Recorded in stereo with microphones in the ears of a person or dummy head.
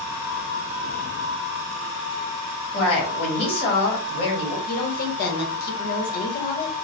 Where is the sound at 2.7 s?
30° left (ahead or behind), 1.8 m.